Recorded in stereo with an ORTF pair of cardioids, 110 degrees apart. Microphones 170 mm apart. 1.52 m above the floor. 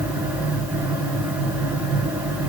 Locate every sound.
0.0 s a fan: 10° right, 3.5 m